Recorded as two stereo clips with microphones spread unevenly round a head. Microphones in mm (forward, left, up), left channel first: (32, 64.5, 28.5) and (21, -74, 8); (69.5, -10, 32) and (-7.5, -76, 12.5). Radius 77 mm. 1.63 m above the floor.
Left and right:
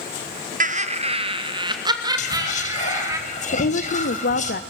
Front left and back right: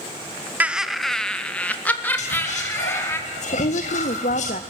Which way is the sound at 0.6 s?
65° right.